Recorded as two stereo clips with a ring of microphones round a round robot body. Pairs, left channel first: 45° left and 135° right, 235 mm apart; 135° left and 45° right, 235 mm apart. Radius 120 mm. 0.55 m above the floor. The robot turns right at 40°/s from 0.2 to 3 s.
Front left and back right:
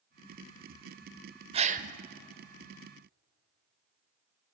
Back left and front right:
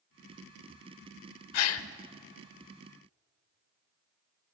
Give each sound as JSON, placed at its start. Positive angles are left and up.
{"t": 1.5, "sound": "a gasp", "azimuth_deg": 155, "distance_m": 1.0}